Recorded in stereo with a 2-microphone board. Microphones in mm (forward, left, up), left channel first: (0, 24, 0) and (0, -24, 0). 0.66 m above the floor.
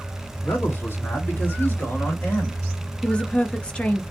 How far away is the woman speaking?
About 0.5 m.